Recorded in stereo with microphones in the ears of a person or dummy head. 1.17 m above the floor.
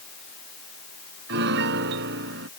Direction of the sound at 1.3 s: 70° right (ahead or behind).